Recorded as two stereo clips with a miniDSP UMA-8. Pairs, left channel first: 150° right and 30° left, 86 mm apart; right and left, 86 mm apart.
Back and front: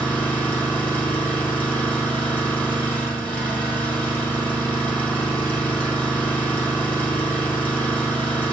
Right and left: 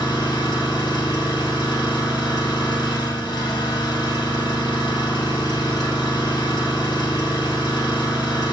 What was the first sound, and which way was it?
An engine running, 85° right.